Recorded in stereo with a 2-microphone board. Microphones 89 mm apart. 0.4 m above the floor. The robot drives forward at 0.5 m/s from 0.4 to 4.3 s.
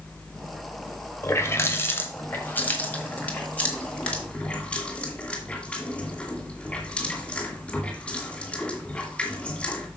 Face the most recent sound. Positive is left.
turn(degrees=15)  # may be behind; listen again after turning